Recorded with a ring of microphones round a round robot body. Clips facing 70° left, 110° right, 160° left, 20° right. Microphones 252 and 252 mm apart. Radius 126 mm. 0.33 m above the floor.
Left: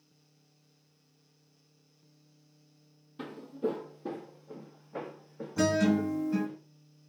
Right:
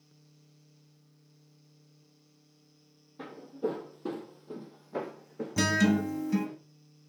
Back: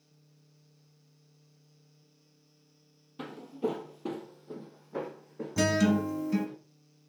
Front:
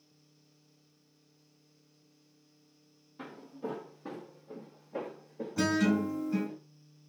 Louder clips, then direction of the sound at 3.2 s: Left 1 dB, back 8 dB; 125° left.